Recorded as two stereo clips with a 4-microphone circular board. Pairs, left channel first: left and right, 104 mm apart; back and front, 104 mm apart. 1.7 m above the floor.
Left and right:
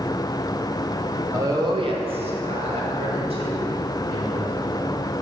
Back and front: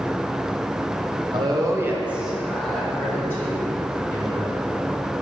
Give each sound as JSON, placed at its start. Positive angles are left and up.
{"t": 1.3, "sound": "a woman speaking", "azimuth_deg": -30, "distance_m": 1.1}